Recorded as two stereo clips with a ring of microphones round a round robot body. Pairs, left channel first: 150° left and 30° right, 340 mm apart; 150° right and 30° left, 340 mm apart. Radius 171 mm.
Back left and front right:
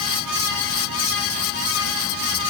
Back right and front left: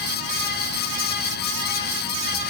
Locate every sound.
Only background noise.